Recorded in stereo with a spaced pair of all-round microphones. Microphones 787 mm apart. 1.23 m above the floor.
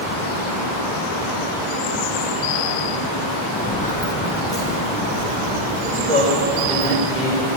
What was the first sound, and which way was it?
Footsteps, 10° left (ahead or behind).